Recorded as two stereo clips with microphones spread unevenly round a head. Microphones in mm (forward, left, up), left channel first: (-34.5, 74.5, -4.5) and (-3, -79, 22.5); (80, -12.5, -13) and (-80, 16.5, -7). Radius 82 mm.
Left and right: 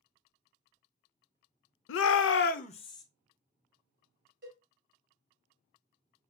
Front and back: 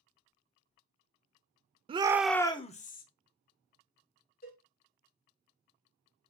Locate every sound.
1.9 s a shout: 110° left, 0.6 m; by 3.0 s 30° left, 0.9 m
4.4 s a cowbell: 50° right, 4 m